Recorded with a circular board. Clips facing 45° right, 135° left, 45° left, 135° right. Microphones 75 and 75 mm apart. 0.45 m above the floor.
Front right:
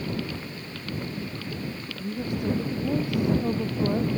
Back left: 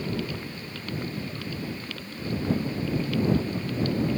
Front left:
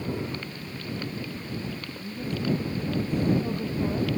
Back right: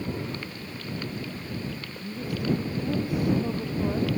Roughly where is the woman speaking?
Ahead right.